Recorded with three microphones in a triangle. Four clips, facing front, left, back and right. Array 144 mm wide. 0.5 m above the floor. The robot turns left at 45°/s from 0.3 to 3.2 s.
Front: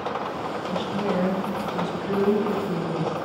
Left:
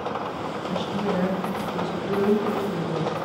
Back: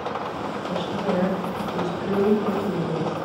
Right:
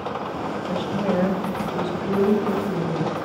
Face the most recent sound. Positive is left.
turn(degrees=165)